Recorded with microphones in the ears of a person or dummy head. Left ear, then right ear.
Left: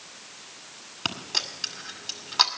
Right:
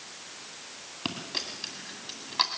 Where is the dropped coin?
20° left (ahead or behind), 2.5 m.